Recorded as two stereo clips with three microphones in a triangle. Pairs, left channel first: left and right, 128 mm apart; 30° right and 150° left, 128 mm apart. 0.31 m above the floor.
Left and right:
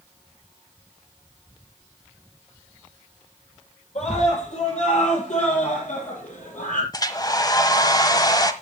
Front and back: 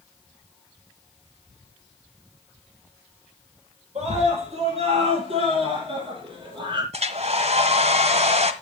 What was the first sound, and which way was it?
A scream, 120° left.